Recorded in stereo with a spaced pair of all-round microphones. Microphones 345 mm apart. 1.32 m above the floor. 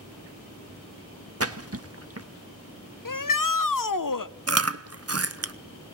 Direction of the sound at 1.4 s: 45° right (ahead or behind).